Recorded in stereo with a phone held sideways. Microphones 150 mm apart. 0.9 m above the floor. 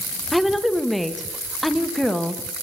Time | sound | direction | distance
0.3 | a woman speaking | centre (ahead or behind) | 0.8 m